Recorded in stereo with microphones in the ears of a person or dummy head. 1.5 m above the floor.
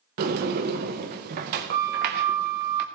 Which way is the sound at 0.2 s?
35° right (ahead or behind).